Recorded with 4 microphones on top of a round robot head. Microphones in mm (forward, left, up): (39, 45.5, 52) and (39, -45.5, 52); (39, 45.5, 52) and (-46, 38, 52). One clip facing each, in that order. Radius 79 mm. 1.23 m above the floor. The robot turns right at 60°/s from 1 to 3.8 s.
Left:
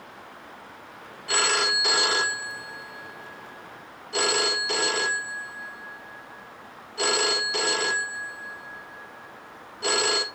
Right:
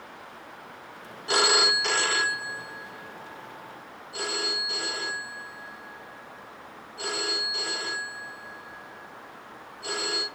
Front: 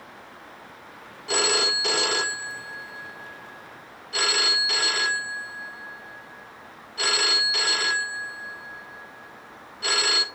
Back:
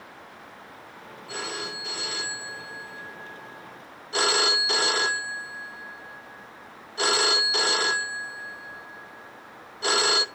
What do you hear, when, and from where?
1.3 s a phone ringing: 25° right, 1.0 m; by 10.2 s 125° left, 1.0 m